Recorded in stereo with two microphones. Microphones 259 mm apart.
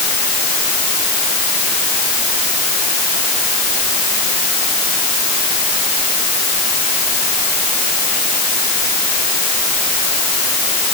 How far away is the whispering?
I don't hear whispering.